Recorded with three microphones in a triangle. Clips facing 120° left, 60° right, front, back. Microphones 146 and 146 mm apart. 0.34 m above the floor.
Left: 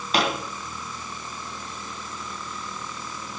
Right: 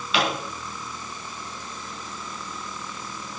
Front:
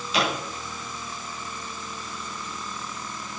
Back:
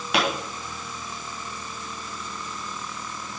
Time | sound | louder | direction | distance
0.1 | a pop | left 1 dB, back 1 dB | 165° left | 4.5 m